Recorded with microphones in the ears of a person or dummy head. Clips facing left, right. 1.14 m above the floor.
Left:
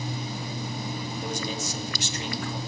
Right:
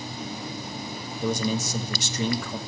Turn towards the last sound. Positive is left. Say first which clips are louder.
# right 9 dB
turn(degrees=-80)